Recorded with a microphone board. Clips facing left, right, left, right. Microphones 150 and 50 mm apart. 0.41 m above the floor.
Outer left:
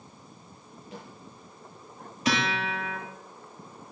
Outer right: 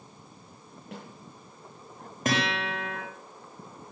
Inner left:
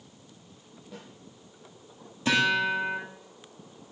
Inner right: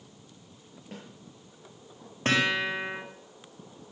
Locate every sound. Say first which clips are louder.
0.9 s a snare drum: outer right 1 dB, inner right 1 dB; 65° right (ahead or behind), 7.5 m
2.2 s a guitar: even, inner left 2 dB; 50° right (ahead or behind), 9 m